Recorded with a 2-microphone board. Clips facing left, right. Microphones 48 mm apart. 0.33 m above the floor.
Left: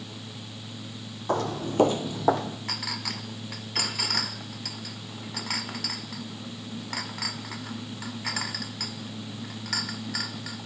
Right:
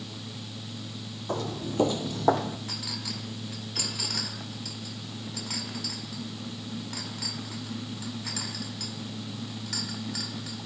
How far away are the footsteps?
About 0.8 m.